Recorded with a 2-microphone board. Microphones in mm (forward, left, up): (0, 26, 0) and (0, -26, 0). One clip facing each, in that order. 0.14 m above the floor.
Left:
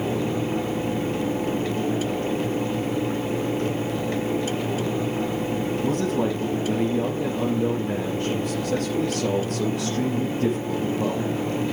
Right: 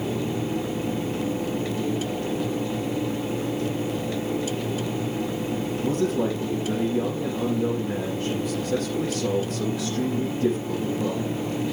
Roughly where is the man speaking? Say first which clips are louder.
Right 1 dB; left.